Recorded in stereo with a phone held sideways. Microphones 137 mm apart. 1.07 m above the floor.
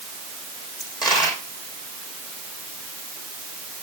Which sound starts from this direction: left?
A dropped coin, at 0.8 s.